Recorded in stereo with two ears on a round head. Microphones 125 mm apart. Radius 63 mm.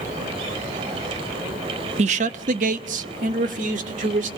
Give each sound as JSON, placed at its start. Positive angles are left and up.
{"t": 2.0, "sound": "a man speaking", "side_deg": -50, "distance_m": 0.7}